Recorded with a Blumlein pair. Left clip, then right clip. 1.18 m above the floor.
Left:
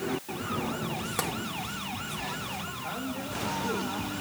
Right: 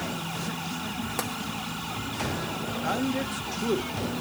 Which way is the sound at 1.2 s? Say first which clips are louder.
Left 1 dB; straight ahead.